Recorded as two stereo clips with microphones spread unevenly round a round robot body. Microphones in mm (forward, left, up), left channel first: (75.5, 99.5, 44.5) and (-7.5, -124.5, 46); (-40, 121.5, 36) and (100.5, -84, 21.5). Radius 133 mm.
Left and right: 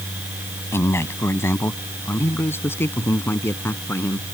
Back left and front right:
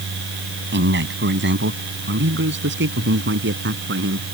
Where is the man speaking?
10° right.